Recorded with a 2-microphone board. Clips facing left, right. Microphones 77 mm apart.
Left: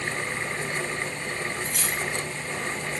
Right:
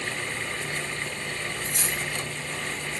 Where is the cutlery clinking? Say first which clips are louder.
Left 1 dB; 30° right (ahead or behind), 1.1 m.